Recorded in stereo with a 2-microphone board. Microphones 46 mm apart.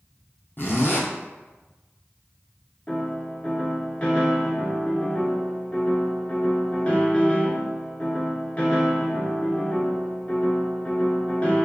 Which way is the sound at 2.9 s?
30° left (ahead or behind).